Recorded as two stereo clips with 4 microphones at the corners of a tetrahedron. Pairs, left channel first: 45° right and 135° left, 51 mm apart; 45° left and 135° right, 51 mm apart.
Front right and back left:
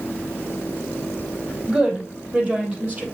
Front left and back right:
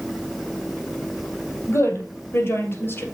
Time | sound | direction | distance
1.7 | a woman speaking | 75° left | 3.5 m